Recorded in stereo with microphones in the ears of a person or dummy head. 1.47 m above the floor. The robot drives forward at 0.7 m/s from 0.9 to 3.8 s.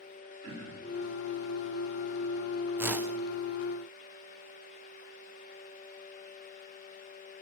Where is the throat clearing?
20° right (ahead or behind), 9.5 m.